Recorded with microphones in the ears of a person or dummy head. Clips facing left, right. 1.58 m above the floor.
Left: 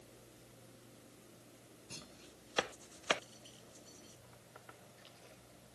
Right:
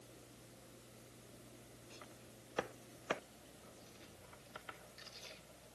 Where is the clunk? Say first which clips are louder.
Left 3 dB; 70° left (ahead or behind).